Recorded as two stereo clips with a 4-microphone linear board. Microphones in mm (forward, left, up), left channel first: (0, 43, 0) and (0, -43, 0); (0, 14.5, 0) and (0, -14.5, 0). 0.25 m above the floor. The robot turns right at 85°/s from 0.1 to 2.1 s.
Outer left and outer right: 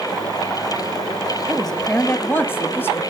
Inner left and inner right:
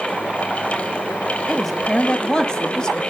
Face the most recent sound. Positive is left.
turn(degrees=45)